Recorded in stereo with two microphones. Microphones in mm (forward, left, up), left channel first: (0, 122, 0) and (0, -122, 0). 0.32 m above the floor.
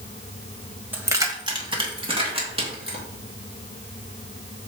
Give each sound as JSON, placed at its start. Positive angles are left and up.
{"t": 0.9, "sound": "keys jangling", "side_deg": -10, "distance_m": 1.0}